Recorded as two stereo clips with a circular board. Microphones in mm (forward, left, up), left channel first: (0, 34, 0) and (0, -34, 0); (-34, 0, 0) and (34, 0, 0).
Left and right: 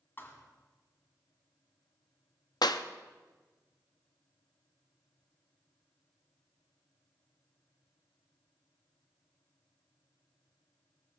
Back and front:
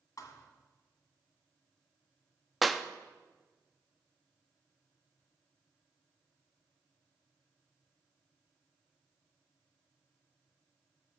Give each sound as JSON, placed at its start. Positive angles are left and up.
{"t": 0.2, "sound": "a thud", "azimuth_deg": 150, "distance_m": 1.7}
{"t": 2.6, "sound": "a clap", "azimuth_deg": 90, "distance_m": 0.6}